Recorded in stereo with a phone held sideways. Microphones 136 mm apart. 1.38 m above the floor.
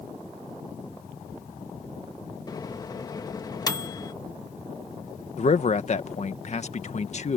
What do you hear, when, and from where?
2.5 s a microwave: 25° left (ahead or behind)
5.4 s a man speaking: 55° left (ahead or behind)